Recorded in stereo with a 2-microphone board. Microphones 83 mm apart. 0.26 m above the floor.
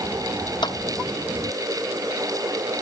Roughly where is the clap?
Left.